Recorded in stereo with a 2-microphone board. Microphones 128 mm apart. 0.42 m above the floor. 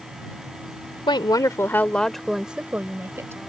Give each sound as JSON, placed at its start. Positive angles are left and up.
{"t": 1.1, "sound": "a woman speaking", "side_deg": 40}